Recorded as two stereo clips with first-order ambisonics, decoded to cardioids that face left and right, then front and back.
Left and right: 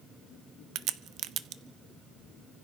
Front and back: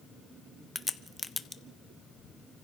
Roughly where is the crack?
Right.